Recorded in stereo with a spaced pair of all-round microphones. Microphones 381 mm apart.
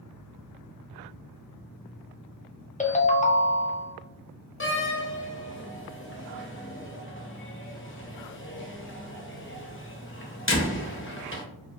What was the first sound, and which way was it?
A ringtone, 20° left (ahead or behind).